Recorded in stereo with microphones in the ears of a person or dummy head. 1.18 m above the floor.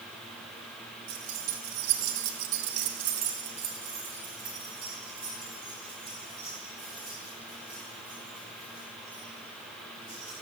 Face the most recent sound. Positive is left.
turn(degrees=25)  # may be behind; listen again after turning